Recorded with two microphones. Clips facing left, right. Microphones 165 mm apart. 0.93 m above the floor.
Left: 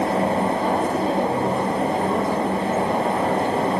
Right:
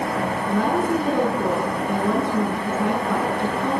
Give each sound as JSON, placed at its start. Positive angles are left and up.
{"t": 0.5, "sound": "a woman speaking", "side_deg": -75, "distance_m": 9.0}